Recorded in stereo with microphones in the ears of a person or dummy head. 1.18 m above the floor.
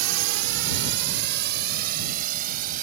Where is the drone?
80° right; by 2.8 s 50° right (ahead or behind).